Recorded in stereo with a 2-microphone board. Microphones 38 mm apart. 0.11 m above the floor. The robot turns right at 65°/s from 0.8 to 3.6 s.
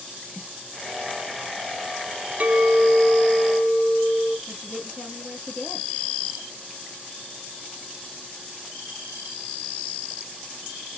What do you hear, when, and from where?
0.3 s a snare drum: 15° right (ahead or behind), 1.7 m
2.4 s a clink: 65° right, 1.1 m; by 4.4 s 10° left, 1.1 m
4.5 s a woman speaking: 25° left (ahead or behind), 2.5 m